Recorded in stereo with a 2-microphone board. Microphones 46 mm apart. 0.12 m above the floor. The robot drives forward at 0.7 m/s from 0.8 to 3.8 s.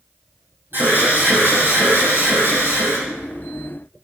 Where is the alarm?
45° right (ahead or behind), 5.5 m; by 3.0 s 55° right (ahead or behind), 5 m.